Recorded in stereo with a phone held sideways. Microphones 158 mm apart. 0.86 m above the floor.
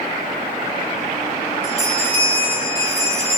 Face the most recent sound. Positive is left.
turn(degrees=-45)  # may be behind; listen again after turning